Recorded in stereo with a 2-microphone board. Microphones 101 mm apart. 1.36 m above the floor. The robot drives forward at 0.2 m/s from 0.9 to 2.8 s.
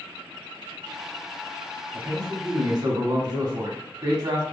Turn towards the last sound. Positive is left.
turn(degrees=-45)  # may be behind; listen again after turning